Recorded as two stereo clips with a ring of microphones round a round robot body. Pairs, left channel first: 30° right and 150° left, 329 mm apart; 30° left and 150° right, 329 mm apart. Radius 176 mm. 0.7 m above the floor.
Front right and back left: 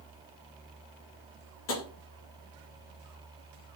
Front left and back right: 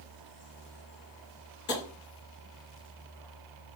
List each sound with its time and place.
1.7 s tapping: 15° right, 0.9 m